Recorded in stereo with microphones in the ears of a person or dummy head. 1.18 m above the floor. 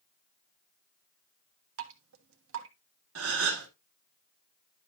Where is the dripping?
75° right (ahead or behind), 1.4 m.